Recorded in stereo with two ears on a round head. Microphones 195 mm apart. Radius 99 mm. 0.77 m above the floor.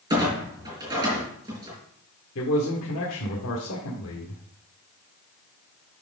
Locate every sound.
0.1 s a clunk: 15° right (ahead or behind), 5 m
2.4 s a man speaking: 60° left (ahead or behind), 1.8 m